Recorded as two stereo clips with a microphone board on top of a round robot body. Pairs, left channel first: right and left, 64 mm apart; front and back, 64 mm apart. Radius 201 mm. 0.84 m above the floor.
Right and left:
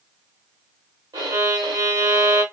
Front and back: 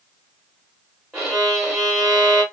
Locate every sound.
1.1 s a violin: 85° left, 1.0 m